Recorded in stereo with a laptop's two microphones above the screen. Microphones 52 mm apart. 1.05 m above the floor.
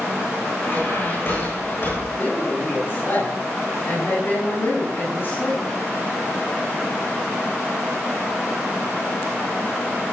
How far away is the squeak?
About 8 m.